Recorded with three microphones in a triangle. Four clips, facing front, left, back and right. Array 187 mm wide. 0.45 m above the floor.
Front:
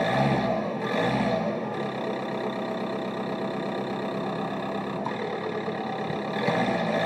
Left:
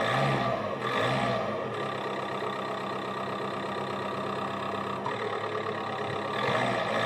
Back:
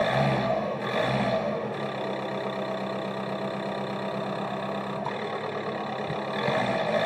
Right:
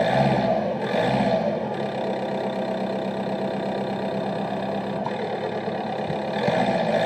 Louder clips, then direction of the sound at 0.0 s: Right 7 dB, front 1 dB; 90° right.